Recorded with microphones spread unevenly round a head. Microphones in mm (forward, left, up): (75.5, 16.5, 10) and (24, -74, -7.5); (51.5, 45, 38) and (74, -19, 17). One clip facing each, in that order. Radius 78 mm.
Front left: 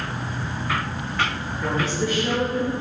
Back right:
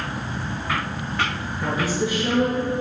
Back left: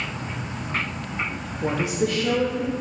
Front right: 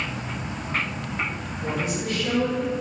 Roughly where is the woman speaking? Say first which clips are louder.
Back right 1 dB, back left 5 dB; behind left.